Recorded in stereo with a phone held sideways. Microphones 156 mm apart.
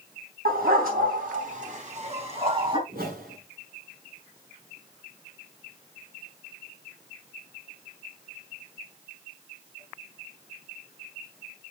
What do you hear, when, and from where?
0.5 s a dog barking: 80° right, 4 m; by 2.8 s 35° right (ahead or behind), 4 m
2.9 s a whoosh: 75° right (ahead or behind), 7.5 m